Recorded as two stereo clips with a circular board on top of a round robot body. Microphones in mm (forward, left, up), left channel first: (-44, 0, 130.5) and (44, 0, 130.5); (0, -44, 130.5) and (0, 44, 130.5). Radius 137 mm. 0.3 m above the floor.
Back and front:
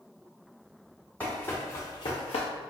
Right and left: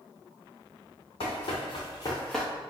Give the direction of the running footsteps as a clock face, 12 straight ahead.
4 o'clock.